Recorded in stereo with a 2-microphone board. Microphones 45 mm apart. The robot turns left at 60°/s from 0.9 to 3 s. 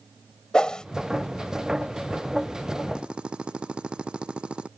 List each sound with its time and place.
0.5 s a whoosh: 20° left (ahead or behind)
3.0 s a drill: 20° right (ahead or behind); by 4.7 s 25° right (ahead or behind)